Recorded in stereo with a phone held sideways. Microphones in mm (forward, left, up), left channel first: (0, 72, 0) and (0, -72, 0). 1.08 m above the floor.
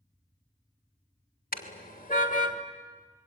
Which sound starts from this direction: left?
A car horn, at 1.5 s.